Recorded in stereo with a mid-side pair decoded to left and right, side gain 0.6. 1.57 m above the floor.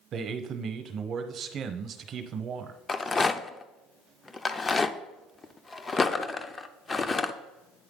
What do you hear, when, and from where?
0.1 s a man speaking: 50° right, 0.9 m
2.9 s a rattle: 25° left, 0.5 m